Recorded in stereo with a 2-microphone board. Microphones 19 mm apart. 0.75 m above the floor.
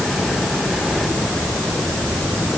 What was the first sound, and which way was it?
Only background noise.